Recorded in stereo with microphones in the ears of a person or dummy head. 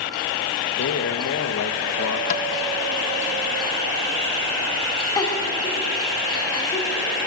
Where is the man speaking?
65° left (ahead or behind), 1.7 m.